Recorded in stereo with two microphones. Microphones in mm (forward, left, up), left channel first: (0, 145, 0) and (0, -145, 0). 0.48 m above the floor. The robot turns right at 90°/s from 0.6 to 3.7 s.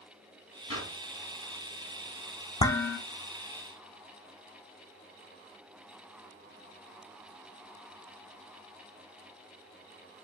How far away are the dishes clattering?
About 0.7 m.